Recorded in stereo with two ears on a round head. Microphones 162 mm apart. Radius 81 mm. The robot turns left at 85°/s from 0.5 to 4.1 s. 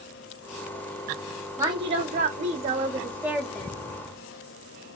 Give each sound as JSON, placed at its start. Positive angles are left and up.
{"t": 1.6, "sound": "a woman speaking", "azimuth_deg": -25, "distance_m": 0.7}